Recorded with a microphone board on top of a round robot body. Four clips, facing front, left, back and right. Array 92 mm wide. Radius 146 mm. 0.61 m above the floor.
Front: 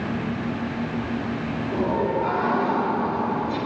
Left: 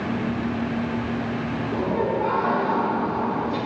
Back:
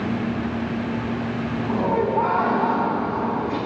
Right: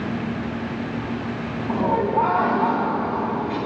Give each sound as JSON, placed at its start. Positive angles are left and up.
{"t": 1.7, "sound": "laughter", "azimuth_deg": -115, "distance_m": 5.0}